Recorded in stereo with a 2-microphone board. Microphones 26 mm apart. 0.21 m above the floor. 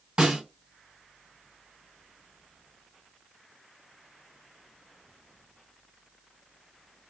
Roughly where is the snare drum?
Right.